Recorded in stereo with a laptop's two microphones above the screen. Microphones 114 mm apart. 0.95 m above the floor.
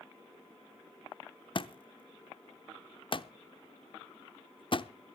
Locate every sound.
1.6 s a thud: 45° left (ahead or behind), 0.7 m